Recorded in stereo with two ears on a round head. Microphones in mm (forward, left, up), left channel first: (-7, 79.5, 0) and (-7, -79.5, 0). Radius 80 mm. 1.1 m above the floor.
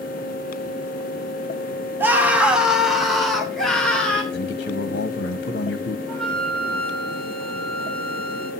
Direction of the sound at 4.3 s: 75° left (ahead or behind).